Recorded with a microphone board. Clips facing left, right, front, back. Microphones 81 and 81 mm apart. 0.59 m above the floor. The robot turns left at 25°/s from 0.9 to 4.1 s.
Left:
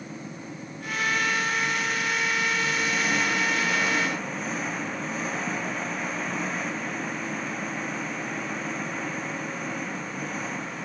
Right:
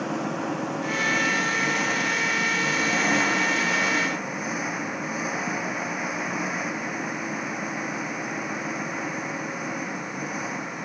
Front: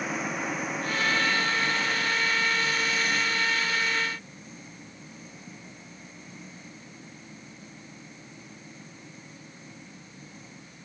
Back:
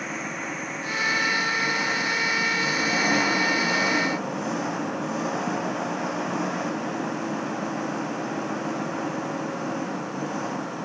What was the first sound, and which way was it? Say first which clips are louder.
An engine running: right 11 dB, front 1 dB; 90° right.